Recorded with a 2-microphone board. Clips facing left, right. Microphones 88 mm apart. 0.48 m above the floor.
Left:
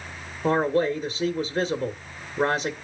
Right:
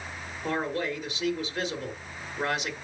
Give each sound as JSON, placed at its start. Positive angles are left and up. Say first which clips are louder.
{"t": 0.4, "sound": "a man speaking", "louder": "left 8 dB", "side_deg": 35, "distance_m": 0.9}